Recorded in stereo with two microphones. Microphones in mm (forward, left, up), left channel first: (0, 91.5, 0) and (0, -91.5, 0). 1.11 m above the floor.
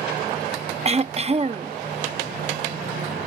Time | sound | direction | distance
0.8 | throat clearing | 35° right (ahead or behind) | ?